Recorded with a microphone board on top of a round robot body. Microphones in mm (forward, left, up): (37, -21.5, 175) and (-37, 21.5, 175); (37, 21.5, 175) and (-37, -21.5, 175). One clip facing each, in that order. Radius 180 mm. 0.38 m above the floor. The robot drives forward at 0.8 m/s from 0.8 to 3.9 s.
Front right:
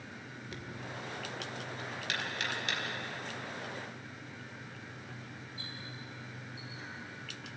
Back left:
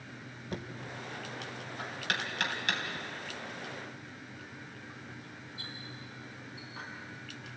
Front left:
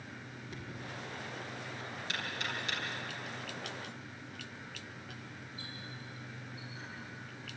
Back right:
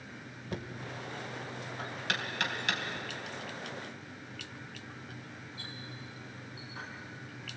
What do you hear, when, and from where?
0.5 s knocking: 165° right, 2.5 m; by 6.9 s 175° right, 4.5 m